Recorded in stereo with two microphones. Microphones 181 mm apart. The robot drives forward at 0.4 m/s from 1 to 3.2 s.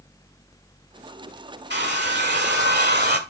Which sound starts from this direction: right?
A hair dryer, at 1.7 s.